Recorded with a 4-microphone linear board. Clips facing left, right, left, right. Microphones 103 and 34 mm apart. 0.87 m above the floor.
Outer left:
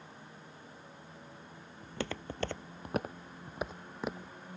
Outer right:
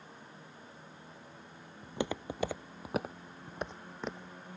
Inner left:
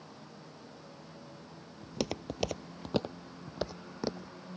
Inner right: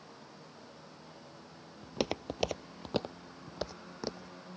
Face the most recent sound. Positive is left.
turn(degrees=10)  # may be behind; listen again after turning